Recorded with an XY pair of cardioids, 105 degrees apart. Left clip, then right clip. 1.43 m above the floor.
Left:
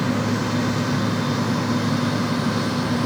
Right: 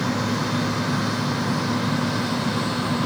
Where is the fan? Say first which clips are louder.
Left 1 dB; 20° left.